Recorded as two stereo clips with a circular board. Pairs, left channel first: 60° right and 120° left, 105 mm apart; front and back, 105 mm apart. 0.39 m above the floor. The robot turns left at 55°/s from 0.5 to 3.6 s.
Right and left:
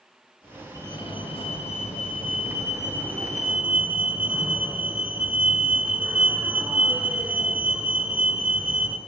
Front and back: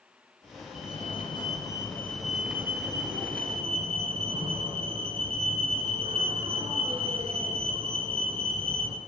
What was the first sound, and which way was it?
A fire alarm, 5° right.